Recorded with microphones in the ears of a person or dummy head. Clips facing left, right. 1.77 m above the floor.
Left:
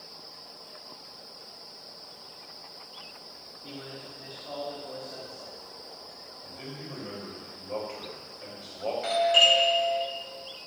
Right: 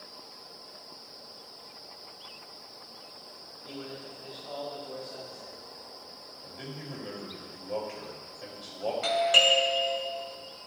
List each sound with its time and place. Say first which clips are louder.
3.6 s a man speaking: right 1 dB; 30° left (ahead or behind), 4.5 m
6.4 s a man speaking: even; 15° right (ahead or behind), 3.5 m
9.0 s a doorbell: left 2 dB; 65° right (ahead or behind), 2.5 m